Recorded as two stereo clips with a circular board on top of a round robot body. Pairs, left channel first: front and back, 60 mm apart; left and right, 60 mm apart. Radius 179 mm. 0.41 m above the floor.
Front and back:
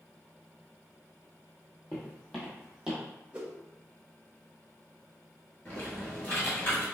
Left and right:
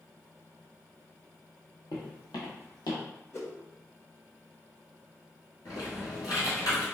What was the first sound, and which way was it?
Footsteps, 70° left.